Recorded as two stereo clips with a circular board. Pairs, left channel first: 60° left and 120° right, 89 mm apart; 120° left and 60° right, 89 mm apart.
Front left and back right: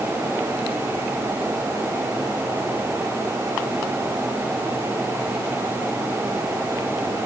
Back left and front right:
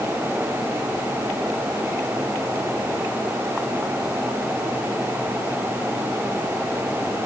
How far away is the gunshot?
No gunshot in this recording.